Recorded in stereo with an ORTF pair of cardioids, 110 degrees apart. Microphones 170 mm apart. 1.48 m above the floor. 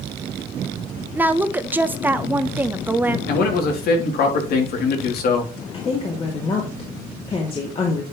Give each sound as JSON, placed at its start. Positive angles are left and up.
{"t": 1.1, "sound": "a woman speaking", "azimuth_deg": -10, "distance_m": 1.0}
{"t": 3.3, "sound": "a man speaking", "azimuth_deg": 65, "distance_m": 3.0}
{"t": 5.7, "sound": "a woman speaking", "azimuth_deg": 35, "distance_m": 2.5}